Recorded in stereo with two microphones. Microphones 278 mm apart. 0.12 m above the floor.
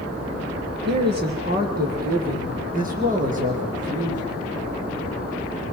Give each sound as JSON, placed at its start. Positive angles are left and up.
{"t": 0.8, "sound": "a man speaking", "side_deg": -40, "distance_m": 4.0}